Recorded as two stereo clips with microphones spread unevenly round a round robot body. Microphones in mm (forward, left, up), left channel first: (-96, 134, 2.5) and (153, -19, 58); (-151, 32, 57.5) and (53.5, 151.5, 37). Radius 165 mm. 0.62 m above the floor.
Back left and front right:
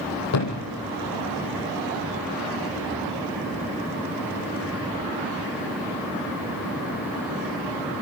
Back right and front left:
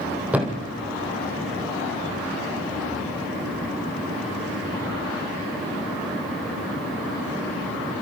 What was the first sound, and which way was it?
A thud, 115° left.